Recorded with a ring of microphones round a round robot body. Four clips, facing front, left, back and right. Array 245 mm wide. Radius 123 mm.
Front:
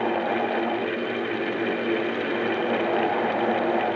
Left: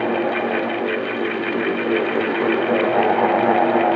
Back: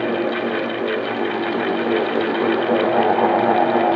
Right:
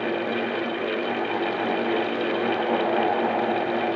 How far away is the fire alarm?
I don't hear a fire alarm.